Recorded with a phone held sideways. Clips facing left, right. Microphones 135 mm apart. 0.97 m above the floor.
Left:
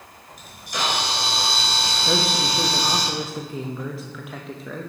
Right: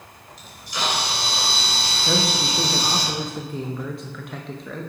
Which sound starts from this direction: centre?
A man speaking, at 2.0 s.